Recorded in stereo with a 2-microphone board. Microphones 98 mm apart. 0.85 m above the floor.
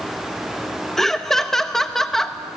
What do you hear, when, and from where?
1.0 s laughter: 5° left (ahead or behind), 0.7 m